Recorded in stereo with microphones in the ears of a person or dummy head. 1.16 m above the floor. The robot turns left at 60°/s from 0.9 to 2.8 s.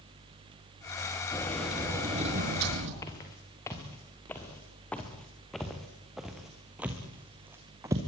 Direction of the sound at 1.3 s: 20° left.